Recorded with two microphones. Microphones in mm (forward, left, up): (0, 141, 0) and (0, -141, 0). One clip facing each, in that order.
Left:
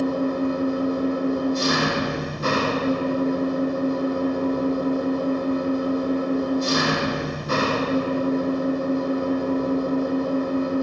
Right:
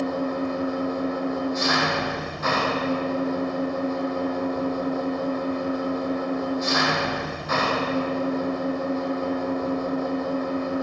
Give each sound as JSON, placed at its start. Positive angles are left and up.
{"t": 0.0, "sound": "an engine running", "side_deg": 40, "distance_m": 4.5}